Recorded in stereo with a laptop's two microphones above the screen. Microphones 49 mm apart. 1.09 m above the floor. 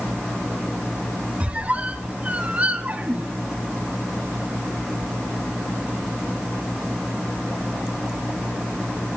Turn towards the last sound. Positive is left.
turn(degrees=-30)  # may be behind; listen again after turning